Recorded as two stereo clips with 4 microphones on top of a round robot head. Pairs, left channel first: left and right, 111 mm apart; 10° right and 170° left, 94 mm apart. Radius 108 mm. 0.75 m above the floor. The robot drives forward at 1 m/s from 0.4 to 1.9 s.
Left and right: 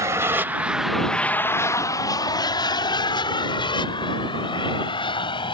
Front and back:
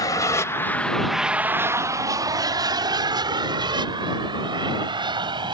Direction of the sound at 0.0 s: 40° right.